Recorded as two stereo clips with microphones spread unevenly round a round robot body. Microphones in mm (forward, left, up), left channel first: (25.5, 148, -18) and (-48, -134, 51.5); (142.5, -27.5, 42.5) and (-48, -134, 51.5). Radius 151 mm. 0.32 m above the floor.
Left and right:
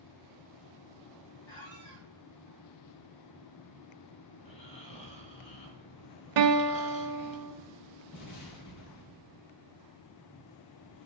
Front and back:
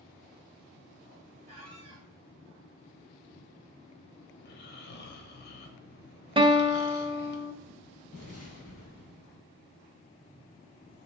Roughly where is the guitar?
Right.